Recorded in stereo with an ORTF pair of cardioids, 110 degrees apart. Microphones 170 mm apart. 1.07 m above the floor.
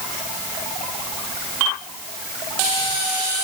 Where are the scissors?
I don't hear scissors.